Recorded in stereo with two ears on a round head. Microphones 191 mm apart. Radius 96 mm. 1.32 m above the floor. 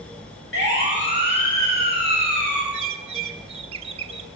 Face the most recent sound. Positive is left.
turn(degrees=-30)  # may be behind; listen again after turning